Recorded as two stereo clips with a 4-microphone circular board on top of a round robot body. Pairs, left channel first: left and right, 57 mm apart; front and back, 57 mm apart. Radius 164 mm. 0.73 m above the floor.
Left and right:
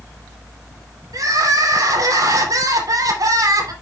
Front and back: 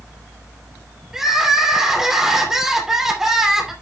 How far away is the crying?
About 3 m.